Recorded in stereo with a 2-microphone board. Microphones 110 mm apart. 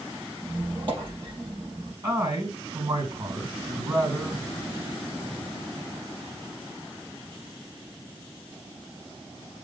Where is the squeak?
50° right (ahead or behind), 4 m.